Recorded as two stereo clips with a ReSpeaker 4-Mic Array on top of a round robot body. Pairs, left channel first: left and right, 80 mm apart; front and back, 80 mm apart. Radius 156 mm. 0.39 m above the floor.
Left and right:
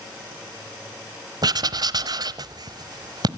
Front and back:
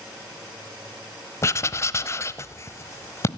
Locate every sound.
1.4 s writing: 55° right, 1.1 m